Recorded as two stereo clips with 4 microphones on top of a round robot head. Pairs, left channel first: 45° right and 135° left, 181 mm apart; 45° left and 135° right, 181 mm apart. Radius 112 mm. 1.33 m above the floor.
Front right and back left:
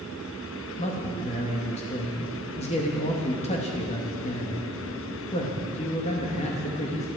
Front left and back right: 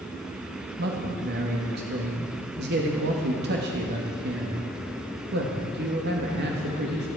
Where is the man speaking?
100° right, 1.9 m.